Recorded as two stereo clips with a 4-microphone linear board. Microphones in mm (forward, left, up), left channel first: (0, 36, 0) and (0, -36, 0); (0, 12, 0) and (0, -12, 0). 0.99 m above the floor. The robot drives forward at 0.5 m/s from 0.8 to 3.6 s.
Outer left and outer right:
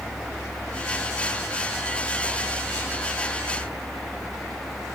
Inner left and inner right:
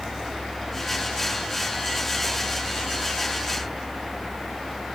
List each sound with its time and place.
Only background noise.